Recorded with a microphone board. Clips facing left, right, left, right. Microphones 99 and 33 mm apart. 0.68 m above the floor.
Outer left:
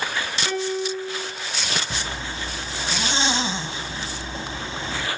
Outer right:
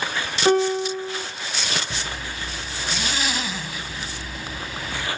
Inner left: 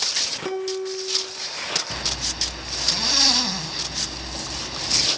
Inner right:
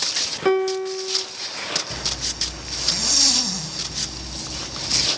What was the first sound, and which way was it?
A piano, 45° right (ahead or behind).